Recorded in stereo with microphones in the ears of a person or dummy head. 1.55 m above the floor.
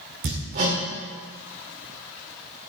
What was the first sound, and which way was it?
Hammering, 50° right (ahead or behind).